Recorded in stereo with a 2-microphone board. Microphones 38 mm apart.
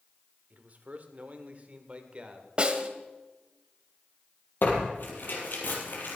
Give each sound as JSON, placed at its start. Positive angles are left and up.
{"t": 0.5, "sound": "a man speaking", "side_deg": -45, "distance_m": 1.7}
{"t": 2.6, "sound": "a snare drum", "side_deg": -25, "distance_m": 1.3}
{"t": 4.6, "sound": "tearing paper", "side_deg": 60, "distance_m": 3.5}